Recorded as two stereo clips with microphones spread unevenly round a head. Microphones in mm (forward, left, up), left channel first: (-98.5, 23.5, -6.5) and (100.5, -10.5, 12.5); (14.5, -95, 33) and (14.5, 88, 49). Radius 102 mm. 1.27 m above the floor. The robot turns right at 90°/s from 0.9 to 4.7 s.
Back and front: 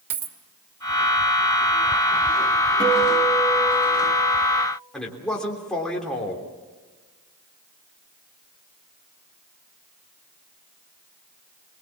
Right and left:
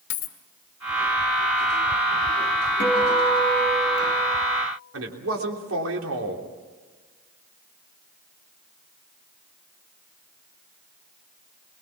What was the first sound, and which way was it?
A dropped coin, 55° right.